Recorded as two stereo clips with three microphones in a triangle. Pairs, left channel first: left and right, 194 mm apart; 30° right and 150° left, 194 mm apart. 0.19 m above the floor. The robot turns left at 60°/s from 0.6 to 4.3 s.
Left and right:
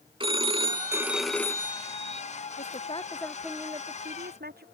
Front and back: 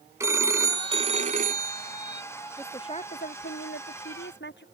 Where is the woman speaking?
50° left; by 4.7 s 55° right.